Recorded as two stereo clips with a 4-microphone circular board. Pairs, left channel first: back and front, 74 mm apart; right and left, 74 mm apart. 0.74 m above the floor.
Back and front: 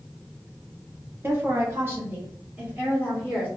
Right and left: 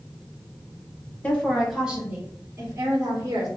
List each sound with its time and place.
1.2 s a woman speaking: 30° right, 0.9 m; by 3.5 s 70° left, 1.5 m